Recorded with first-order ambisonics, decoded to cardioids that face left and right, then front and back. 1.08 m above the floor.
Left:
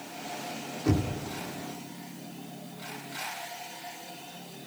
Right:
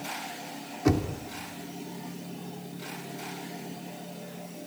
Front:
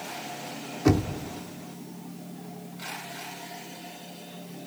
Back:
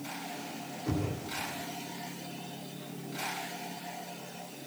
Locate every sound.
0.8 s knocking: 25° right, 2.5 m